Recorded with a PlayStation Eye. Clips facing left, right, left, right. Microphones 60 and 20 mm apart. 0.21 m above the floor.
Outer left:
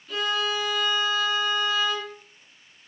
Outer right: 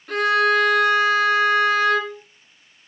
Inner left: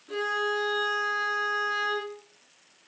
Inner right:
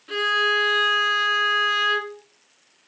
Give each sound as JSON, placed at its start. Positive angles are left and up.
{"t": 0.1, "sound": "a violin", "side_deg": -65, "distance_m": 1.5}